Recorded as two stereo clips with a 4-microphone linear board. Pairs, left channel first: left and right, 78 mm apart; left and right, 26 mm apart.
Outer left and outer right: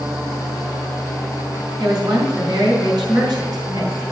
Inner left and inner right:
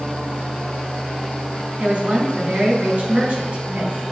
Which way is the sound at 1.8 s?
55° right (ahead or behind).